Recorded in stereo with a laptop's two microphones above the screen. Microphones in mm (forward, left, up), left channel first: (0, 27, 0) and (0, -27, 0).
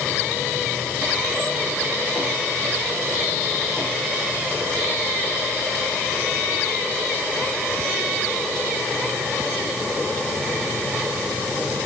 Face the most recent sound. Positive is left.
No sound to turn to.